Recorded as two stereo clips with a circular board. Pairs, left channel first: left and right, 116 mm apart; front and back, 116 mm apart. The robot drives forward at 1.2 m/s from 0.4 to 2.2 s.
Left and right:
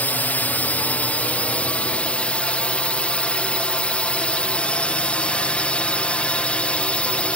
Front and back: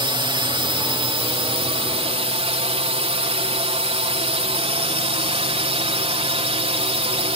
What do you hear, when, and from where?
0.0 s a drone: 160° left; by 7.4 s 165° left